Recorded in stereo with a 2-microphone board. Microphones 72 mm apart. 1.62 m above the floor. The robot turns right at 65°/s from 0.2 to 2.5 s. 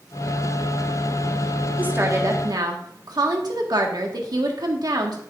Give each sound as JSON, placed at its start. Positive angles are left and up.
{"t": 1.8, "sound": "a woman speaking", "azimuth_deg": -155, "distance_m": 1.7}